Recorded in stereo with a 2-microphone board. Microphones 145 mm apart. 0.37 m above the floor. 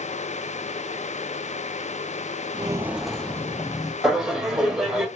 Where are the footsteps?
35° right (ahead or behind), 0.5 m; by 3.9 s 25° left (ahead or behind), 1.0 m.